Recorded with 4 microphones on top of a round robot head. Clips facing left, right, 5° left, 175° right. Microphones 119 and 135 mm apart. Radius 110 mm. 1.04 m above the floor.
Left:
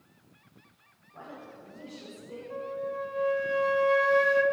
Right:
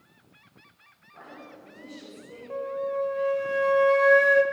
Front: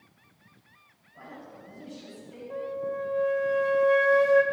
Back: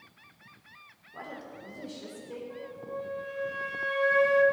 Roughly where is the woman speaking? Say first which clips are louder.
Even, back 3 dB; behind.